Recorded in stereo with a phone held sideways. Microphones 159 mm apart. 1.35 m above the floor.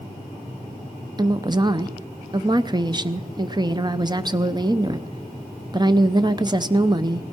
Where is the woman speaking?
25° right (ahead or behind), 0.7 m.